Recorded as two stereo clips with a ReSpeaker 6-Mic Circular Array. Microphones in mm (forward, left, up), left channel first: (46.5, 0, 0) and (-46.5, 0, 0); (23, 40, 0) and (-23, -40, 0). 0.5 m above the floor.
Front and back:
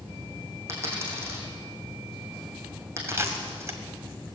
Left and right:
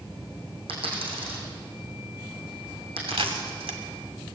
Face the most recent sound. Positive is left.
turn(degrees=-120)